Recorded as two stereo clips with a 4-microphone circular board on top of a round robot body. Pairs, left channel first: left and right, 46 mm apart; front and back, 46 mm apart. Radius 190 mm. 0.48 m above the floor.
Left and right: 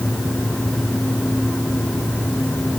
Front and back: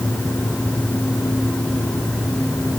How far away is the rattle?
No rattle in this recording.